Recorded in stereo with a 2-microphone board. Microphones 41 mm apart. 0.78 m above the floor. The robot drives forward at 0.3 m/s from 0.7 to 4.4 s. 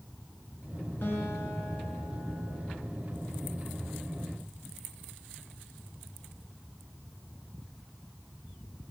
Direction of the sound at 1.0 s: 60° left (ahead or behind).